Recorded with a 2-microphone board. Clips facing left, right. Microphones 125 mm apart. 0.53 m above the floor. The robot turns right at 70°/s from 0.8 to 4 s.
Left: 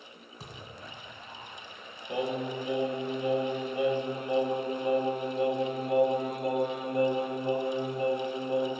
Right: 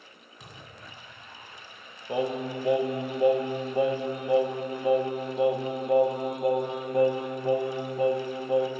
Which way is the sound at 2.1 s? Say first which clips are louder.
Right 3 dB; 155° right.